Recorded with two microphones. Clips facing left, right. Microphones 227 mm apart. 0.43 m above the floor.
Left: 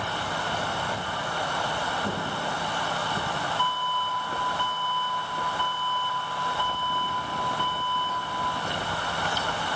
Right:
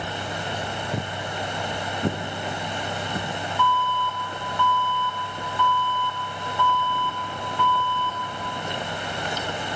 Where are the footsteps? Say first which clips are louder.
Right 3 dB; 65° right (ahead or behind), 0.9 m; by 3.3 s 75° right (ahead or behind), 2.5 m.